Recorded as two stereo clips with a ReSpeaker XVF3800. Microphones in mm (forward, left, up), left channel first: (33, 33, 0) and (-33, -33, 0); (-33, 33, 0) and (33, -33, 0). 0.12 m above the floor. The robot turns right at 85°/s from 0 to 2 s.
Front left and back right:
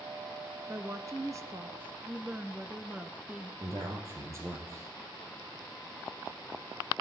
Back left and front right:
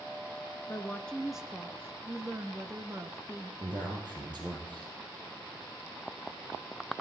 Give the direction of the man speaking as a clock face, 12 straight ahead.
3 o'clock.